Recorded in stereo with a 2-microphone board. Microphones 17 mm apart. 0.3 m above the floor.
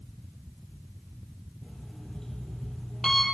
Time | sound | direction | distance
1.6 | an alarm clock | 25° left (ahead or behind) | 5 m